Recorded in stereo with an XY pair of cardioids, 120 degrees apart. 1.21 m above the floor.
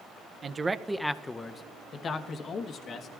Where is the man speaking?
35° right, 0.6 m; by 3.1 s 55° left, 1.6 m.